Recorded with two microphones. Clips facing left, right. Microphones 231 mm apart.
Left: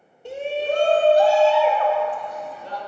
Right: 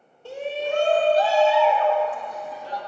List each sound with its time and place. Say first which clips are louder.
0.2 s a shout: left 3 dB; 20° left (ahead or behind), 1.0 m; by 2.8 s 70° left (ahead or behind), 2.5 m